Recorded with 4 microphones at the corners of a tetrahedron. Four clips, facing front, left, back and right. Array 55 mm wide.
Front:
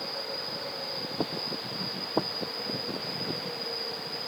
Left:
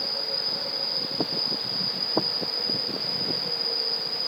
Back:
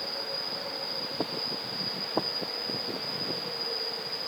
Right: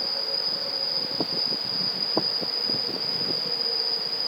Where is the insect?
100° left, 1.5 m.